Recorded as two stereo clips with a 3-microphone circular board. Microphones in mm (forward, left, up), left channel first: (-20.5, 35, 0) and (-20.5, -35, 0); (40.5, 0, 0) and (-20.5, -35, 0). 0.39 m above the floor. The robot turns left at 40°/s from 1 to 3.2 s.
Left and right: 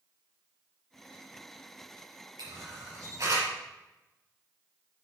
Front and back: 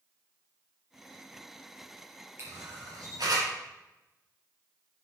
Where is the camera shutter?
100° right, 5 m; by 3.5 s 130° right, 5 m.